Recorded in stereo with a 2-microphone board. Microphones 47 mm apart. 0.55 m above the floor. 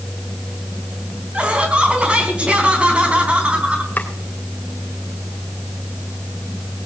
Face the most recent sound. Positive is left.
turn(degrees=40)  # may be behind; listen again after turning